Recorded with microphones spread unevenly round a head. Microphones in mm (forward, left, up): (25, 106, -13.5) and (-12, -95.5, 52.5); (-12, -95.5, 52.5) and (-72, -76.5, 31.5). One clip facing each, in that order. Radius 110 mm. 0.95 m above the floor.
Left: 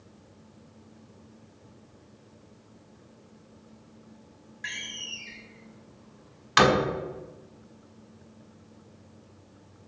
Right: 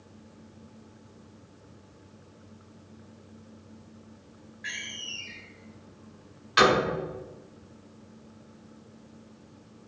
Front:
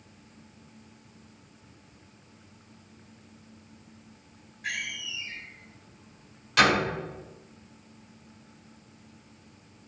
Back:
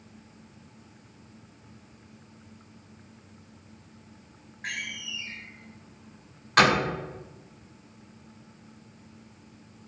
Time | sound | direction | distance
4.6 | a door slam | 95° left | 4.5 m